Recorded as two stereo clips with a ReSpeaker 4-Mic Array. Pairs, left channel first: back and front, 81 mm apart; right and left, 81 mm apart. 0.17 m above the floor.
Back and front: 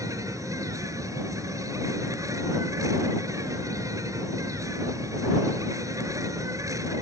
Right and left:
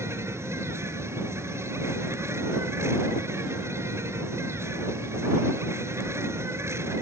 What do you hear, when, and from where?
0.0 s an insect: 40° left